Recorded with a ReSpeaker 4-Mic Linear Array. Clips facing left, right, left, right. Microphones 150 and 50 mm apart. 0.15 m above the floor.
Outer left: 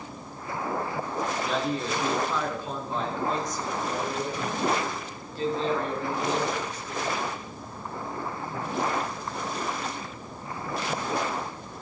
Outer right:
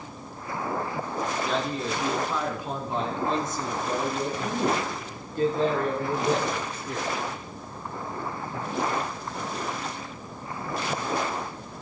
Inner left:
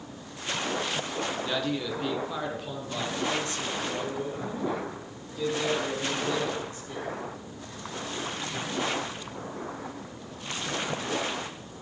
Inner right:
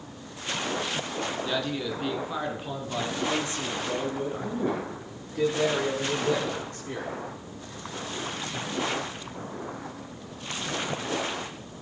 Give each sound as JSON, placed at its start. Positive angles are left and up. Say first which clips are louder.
{"t": 1.4, "sound": "a man speaking", "louder": "even, even", "side_deg": 5, "distance_m": 2.0}